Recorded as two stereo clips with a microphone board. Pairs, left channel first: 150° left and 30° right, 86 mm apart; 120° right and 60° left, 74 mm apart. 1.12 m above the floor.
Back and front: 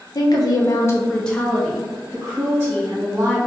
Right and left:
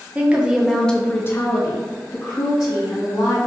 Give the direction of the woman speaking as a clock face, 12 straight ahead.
8 o'clock.